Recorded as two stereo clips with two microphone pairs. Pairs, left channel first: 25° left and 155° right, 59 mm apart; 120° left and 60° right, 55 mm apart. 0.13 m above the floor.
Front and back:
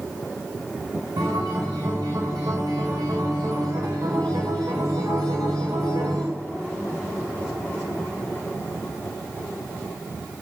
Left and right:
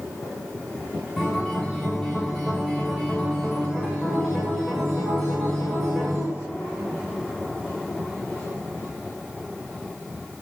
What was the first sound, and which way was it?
A guitar, 155° right.